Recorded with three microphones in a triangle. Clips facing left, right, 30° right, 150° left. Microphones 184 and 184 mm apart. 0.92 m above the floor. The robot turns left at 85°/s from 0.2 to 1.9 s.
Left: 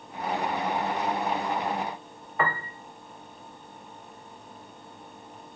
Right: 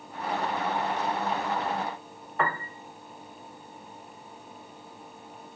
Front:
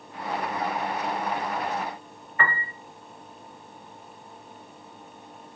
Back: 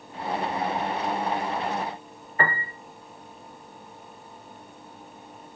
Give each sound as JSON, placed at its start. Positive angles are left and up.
{"t": 2.4, "sound": "a piano", "azimuth_deg": 180, "distance_m": 0.6}